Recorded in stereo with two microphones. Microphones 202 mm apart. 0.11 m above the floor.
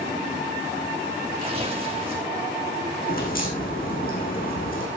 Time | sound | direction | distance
1.4 | tearing paper | 30° right (ahead or behind) | 5 m
3.1 | a crack | 45° left (ahead or behind) | 5 m